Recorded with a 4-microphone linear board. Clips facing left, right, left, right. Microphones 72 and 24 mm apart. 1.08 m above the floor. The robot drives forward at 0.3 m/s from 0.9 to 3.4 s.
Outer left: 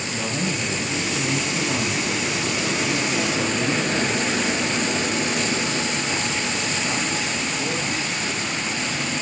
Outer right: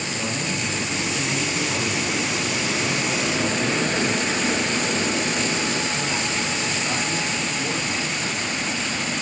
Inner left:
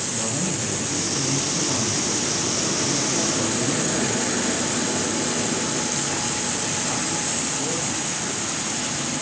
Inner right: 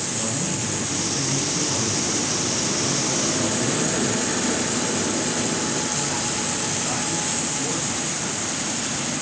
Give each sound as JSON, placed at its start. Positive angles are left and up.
{"t": 0.1, "sound": "a man speaking", "side_deg": 35, "distance_m": 0.9}